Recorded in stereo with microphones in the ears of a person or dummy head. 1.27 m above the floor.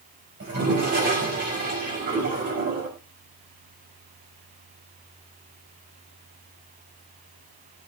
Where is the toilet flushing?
55° right (ahead or behind), 5.5 m.